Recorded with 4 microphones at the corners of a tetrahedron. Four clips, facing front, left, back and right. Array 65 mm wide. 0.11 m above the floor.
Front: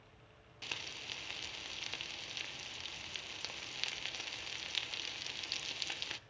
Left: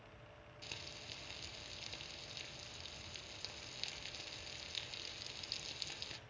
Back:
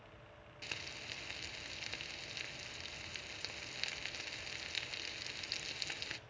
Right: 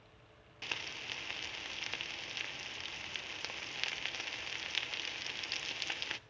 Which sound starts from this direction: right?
Frying, at 0.6 s.